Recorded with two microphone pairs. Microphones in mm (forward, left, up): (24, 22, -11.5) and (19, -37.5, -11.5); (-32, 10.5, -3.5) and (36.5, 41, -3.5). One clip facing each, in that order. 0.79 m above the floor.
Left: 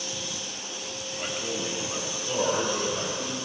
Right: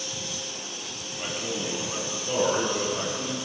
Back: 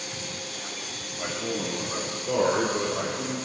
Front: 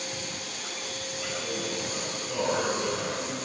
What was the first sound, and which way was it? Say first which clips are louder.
A man speaking: right 1 dB, back 4 dB; straight behind.